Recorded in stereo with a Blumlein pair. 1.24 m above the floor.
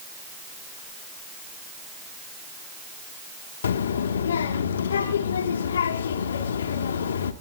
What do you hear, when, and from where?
3.6 s a child speaking: 65° left, 1.7 m